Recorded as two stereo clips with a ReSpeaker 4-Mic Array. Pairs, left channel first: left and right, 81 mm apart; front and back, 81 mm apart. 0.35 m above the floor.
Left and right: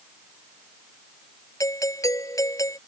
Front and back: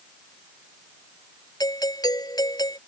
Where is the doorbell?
40° left.